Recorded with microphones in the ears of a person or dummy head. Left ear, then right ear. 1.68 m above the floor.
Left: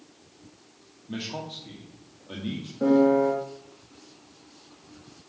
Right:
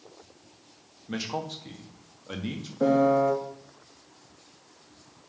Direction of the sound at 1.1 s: 65° right (ahead or behind).